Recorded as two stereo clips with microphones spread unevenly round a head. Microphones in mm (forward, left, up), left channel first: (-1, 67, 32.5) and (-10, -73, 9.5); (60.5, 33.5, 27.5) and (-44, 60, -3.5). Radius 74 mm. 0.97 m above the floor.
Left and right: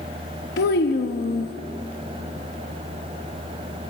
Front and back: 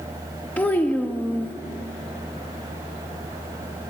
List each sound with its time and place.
0.6 s a child speaking: 65° left, 1.2 m